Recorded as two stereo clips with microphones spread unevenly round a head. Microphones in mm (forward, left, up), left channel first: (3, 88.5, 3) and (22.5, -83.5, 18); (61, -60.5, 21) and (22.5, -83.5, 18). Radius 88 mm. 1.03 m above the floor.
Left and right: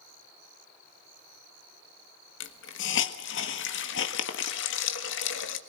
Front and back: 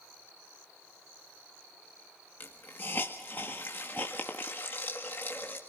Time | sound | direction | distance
2.4 | a hiss | 100° left | 1.5 m